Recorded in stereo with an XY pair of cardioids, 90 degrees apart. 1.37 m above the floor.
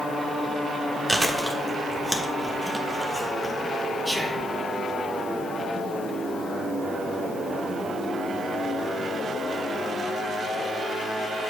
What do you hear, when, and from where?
1.1 s chewing: 10° right, 1.2 m
4.0 s whispering: 5° right, 1.0 m